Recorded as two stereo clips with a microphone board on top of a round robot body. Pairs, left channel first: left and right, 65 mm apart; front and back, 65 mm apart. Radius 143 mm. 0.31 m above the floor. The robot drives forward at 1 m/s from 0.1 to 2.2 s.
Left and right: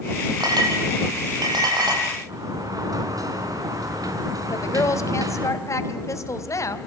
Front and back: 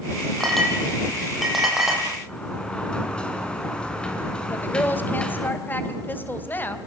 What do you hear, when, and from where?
0.4 s a clink: 85° right, 8 m; by 2.0 s 95° right, 8 m
2.3 s a sliding door: 70° right, 5 m
4.5 s a woman speaking: 60° left, 3 m